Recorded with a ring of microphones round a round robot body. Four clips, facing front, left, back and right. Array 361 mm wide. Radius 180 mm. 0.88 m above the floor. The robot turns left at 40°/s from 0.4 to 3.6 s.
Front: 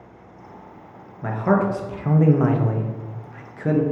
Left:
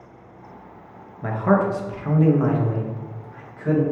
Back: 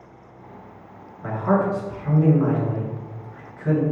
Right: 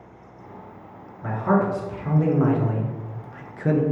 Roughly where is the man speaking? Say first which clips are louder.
Left 2 dB, front 1 dB; ahead left.